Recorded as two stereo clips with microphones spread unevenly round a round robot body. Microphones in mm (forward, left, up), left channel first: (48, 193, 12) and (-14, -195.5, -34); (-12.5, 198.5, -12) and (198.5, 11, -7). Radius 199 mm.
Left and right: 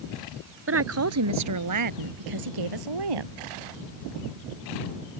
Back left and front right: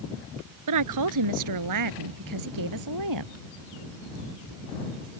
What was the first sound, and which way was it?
A woman speaking, 40° right.